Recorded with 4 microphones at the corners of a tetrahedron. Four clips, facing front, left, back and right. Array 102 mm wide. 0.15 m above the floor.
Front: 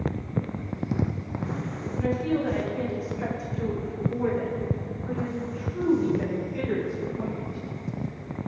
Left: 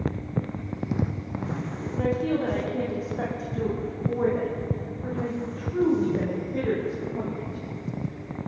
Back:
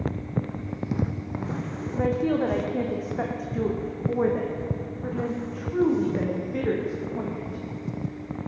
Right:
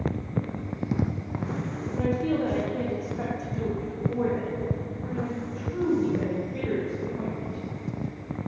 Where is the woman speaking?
Straight behind, 7.5 m; by 7.6 s 155° left, 13.5 m.